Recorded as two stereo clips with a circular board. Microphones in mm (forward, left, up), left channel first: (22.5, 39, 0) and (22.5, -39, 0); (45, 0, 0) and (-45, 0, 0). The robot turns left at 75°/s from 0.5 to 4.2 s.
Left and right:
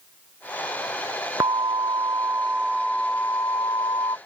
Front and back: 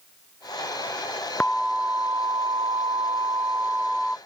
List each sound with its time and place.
1.4 s an alarm: 75° right; by 4.2 s 80° left